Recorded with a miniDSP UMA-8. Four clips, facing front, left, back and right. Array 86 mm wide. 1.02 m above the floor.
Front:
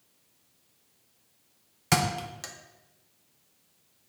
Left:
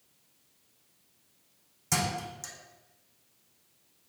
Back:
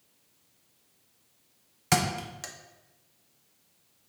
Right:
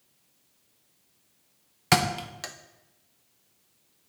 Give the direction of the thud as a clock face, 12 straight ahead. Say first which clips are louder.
Right 7 dB, front 1 dB; 3 o'clock.